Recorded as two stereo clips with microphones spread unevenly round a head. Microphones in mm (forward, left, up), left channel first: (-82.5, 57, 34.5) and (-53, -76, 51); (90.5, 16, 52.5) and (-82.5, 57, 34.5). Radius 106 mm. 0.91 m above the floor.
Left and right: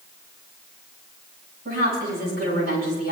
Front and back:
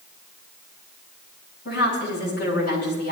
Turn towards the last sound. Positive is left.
turn(degrees=-50)